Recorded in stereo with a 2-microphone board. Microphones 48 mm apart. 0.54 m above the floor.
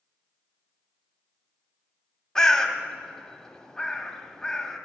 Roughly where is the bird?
Centre.